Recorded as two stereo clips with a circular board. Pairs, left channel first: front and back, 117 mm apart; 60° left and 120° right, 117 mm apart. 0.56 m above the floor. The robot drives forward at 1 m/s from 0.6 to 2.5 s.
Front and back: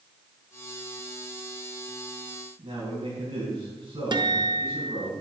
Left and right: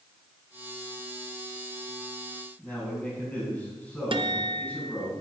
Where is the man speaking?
140° left, 5 m.